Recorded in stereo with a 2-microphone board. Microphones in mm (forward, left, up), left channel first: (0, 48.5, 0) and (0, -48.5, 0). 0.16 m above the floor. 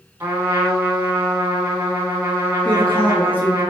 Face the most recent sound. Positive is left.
turn(degrees=20)  # may be behind; listen again after turning